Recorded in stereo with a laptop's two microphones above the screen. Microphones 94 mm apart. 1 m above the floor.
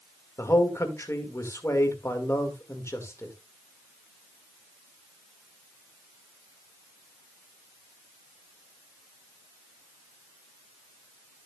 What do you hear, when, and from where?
0.4 s a man speaking: 30° left (ahead or behind), 1.8 m